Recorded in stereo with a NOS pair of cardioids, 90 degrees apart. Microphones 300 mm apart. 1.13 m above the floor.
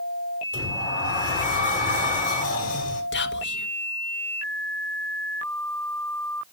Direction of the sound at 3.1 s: 40° left.